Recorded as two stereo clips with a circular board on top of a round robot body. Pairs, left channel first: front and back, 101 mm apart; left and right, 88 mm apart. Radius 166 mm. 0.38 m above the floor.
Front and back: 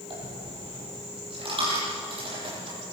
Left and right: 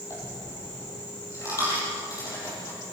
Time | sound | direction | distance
0.1 | a dropped coin | 145° left | 10 m